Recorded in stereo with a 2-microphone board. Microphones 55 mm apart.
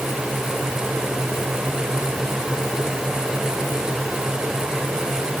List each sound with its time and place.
Only background noise.